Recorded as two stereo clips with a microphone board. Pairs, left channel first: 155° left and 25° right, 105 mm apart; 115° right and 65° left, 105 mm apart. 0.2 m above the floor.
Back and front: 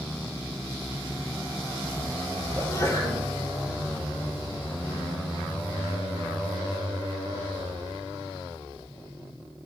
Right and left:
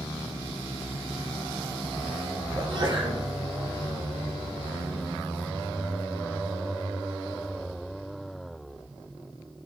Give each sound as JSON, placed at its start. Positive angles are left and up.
{"t": 2.5, "sound": "a sneeze", "azimuth_deg": 110, "distance_m": 4.5}